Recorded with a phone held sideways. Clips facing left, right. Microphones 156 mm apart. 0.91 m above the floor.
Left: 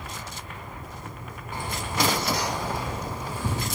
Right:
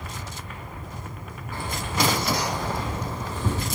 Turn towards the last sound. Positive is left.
turn(degrees=10)  # may be behind; listen again after turning